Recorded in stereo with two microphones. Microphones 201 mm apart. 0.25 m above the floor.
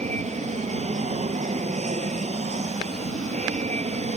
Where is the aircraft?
35° right (ahead or behind).